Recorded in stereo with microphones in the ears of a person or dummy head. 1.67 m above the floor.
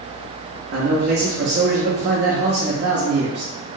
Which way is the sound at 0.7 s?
45° right (ahead or behind).